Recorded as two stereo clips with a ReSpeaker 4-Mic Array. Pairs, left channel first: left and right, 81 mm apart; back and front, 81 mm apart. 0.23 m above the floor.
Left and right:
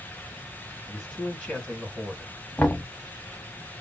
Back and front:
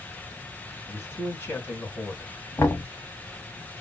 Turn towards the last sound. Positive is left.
turn(degrees=155)